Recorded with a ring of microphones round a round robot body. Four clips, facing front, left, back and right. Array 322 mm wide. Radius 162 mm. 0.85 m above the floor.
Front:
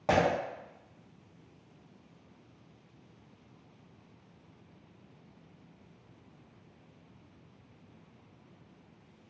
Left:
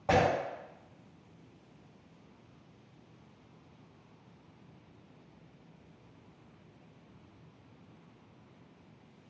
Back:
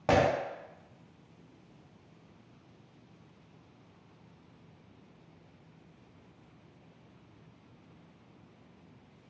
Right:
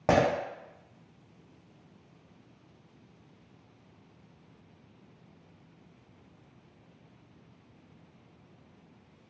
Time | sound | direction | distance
0.1 | breaking glass | 100° right | 0.7 m